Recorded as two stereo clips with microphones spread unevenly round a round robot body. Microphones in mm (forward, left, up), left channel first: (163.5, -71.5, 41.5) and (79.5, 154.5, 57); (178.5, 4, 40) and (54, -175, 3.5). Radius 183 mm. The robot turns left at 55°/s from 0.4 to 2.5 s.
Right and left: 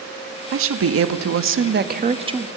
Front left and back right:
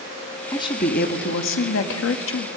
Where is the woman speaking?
140° left, 1.1 m; by 2.5 s 30° left, 1.1 m.